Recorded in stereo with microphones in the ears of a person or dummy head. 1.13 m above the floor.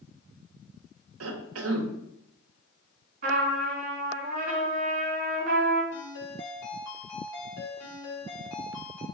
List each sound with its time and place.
1.2 s a cough: 80° right, 0.6 m
3.2 s a trumpet: 45° right (ahead or behind), 1.7 m
5.9 s a ringtone: 25° left (ahead or behind), 2.5 m